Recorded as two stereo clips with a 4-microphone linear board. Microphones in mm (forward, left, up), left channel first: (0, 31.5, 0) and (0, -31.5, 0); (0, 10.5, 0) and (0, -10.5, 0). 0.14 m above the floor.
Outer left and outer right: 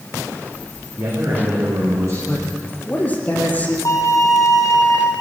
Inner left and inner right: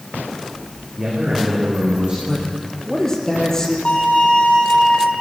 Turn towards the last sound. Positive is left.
turn(degrees=60)  # may be behind; listen again after turning